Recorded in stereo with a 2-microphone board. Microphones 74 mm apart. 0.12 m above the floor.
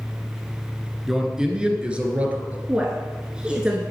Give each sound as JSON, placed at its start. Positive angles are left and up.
{"t": 1.1, "sound": "a man speaking", "side_deg": -5, "distance_m": 1.5}
{"t": 2.7, "sound": "a woman speaking", "side_deg": -15, "distance_m": 1.5}